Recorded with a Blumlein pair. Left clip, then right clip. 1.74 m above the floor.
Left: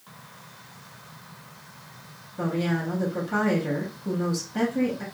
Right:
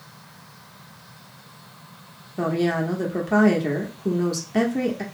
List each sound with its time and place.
2.4 s a woman speaking: 40° right, 0.8 m